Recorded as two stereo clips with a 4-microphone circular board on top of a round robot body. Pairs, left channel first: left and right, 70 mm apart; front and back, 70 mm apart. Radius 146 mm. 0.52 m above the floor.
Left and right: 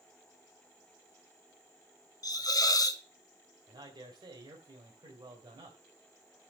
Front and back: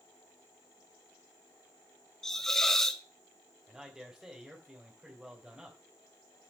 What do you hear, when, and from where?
2.2 s a hiss: 80° left, 1.8 m
3.7 s a man speaking: 105° right, 3 m